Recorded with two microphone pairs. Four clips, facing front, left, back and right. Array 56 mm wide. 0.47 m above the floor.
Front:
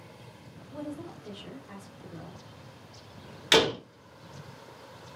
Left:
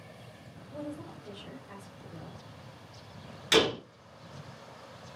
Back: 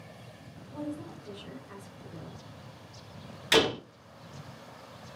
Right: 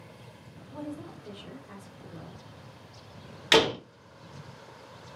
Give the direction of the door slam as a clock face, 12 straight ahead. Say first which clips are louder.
Right 3 dB, front 1 dB; 2 o'clock.